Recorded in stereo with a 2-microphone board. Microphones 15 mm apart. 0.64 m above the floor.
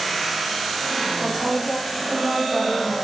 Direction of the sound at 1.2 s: 35° right (ahead or behind).